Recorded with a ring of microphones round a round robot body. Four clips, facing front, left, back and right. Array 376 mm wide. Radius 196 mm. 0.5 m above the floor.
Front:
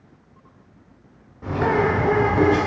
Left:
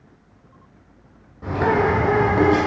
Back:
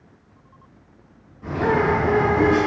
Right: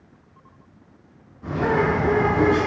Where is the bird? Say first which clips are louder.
Left 2 dB, even; 55° left, 1.7 m.